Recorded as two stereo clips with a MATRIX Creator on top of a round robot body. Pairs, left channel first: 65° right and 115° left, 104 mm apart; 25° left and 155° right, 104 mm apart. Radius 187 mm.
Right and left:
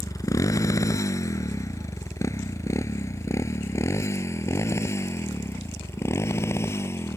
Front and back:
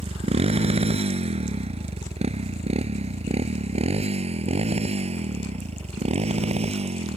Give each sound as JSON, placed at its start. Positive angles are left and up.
{"t": 0.0, "sound": "a motorcycle", "azimuth_deg": -130}